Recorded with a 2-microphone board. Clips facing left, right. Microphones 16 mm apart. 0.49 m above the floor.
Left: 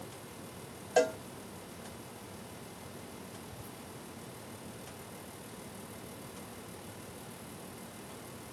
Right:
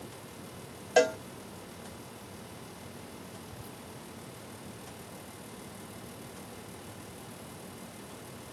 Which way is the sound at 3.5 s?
40° right (ahead or behind).